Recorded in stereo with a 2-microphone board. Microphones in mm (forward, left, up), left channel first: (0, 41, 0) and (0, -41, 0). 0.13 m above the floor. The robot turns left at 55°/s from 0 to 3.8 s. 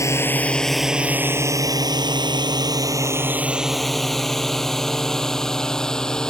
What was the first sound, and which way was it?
A drone, 40° left (ahead or behind).